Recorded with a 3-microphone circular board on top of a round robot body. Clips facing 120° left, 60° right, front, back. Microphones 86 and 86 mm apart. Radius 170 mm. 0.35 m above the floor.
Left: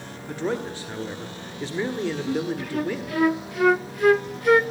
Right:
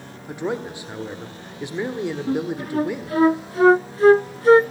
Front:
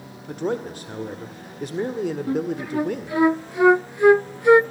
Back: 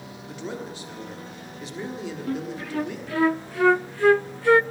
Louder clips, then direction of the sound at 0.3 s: Right 1 dB, front 8 dB; 10° left.